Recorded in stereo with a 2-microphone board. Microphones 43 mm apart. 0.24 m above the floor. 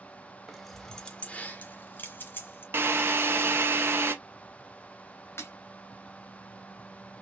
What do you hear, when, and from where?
0.5 s keys jangling: 5° right (ahead or behind), 0.9 m; by 2.6 s 45° left (ahead or behind), 1.8 m
2.7 s a drill: 55° right (ahead or behind), 0.9 m
5.4 s breaking glass: 60° left (ahead or behind), 2.0 m